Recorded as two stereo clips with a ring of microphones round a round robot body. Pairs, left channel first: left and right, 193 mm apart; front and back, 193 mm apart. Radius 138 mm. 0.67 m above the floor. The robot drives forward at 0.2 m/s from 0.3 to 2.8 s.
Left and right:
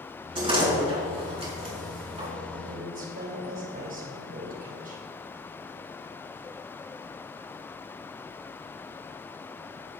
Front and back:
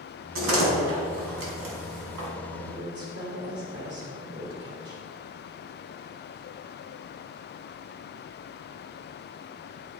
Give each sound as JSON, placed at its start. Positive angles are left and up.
{"t": 0.3, "sound": "a door slam", "azimuth_deg": -165, "distance_m": 4.5}
{"t": 2.5, "sound": "a woman speaking", "azimuth_deg": -135, "distance_m": 2.5}